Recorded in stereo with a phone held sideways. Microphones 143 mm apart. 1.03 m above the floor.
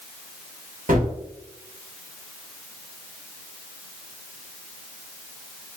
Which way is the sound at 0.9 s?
75° right (ahead or behind).